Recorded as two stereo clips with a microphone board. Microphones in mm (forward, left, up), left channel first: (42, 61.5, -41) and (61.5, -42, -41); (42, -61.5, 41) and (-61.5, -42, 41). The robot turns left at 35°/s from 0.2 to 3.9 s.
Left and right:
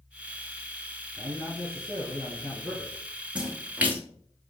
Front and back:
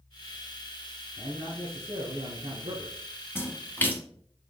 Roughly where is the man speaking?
Behind right.